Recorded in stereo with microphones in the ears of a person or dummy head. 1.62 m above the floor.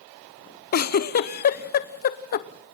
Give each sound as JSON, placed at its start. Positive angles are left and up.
{"t": 0.7, "sound": "a giggle", "side_deg": 50, "distance_m": 0.8}